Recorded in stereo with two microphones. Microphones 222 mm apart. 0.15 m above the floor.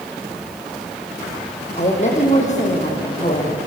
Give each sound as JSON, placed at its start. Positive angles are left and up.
{"t": 1.8, "sound": "a woman speaking", "side_deg": 35, "distance_m": 6.5}